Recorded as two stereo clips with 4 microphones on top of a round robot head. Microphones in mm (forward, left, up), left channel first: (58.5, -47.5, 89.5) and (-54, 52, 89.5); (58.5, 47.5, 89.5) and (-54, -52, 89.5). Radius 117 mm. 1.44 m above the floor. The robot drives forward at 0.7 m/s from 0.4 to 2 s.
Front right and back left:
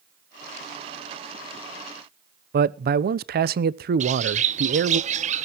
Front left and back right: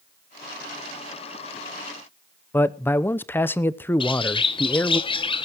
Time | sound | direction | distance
2.5 | a man speaking | 120° left | 0.8 m
4.0 | a bird | 100° left | 1.2 m